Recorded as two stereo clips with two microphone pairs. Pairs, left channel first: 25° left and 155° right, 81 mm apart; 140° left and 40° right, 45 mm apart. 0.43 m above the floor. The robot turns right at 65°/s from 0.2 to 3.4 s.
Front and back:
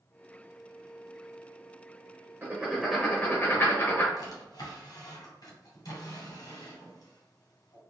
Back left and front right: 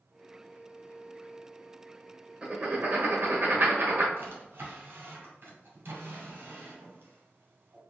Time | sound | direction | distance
2.4 | writing | 100° right | 1.3 m
4.2 | a drawer | 10° right | 1.7 m